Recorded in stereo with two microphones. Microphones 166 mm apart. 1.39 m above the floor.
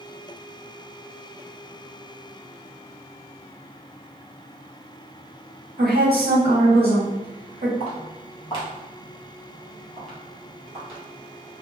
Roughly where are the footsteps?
Left.